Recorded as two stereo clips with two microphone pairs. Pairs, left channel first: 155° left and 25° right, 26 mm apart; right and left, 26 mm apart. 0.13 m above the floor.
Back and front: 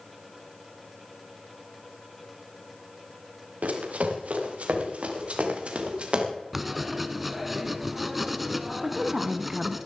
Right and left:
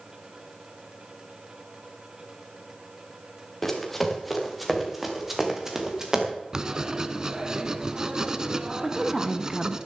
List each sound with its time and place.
3.6 s running footsteps: 10° right, 3.5 m; by 6.3 s 25° left, 3.5 m
6.5 s writing: 65° left, 0.9 m
8.8 s a woman speaking: 35° left, 1.1 m